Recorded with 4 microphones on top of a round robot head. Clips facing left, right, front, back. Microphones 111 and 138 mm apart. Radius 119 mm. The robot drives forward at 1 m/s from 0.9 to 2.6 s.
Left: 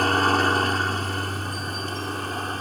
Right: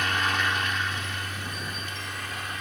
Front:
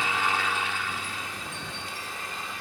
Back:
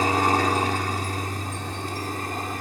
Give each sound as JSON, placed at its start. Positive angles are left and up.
{"t": 0.0, "sound": "a helicopter", "azimuth_deg": 135}